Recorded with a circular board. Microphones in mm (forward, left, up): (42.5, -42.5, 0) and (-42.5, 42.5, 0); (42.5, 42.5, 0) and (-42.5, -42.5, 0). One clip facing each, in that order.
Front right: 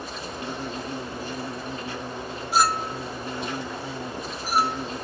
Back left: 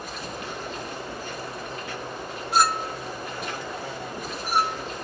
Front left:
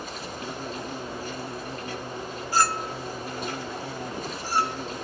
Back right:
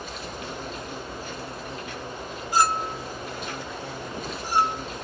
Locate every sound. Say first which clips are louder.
0.0 s an insect: front right 1 dB, even; 10° left, 1.3 m
2.5 s a clink: even, back right 2 dB; 130° right, 0.6 m